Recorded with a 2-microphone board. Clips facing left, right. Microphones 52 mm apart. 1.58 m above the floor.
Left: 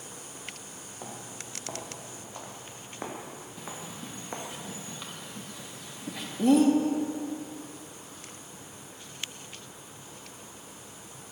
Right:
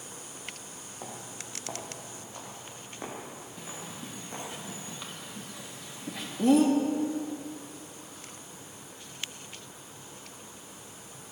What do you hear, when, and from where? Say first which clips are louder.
1.0 s footsteps: even; centre (ahead or behind), 3 m; by 4.5 s 40° left (ahead or behind), 4 m
3.6 s a bird: left 2 dB; centre (ahead or behind), 1.9 m